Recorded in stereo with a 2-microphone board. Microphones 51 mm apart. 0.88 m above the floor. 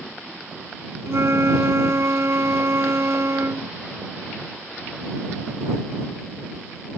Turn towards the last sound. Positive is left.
turn(degrees=-60)  # may be behind; listen again after turning